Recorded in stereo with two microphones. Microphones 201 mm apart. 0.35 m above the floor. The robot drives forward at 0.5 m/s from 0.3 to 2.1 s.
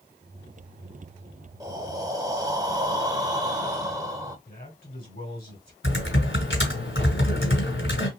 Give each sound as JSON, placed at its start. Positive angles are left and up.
{"t": 1.6, "sound": "breathing", "side_deg": -20, "distance_m": 0.8}
{"t": 4.5, "sound": "a man speaking", "side_deg": 50, "distance_m": 2.5}
{"t": 5.8, "sound": "typing on a keyboard", "side_deg": 70, "distance_m": 1.8}